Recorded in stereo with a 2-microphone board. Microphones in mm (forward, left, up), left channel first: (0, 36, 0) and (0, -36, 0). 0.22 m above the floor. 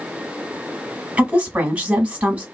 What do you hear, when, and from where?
1.2 s a woman speaking: 15° right (ahead or behind), 1.4 m